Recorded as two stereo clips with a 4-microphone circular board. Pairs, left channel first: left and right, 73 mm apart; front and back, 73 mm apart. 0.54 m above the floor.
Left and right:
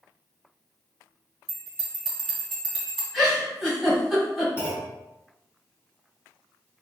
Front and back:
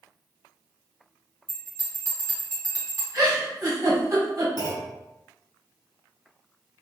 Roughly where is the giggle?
Behind.